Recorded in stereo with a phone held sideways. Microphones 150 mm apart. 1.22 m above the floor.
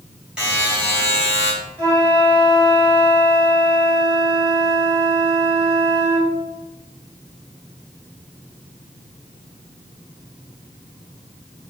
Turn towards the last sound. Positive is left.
turn(degrees=20)  # may be behind; listen again after turning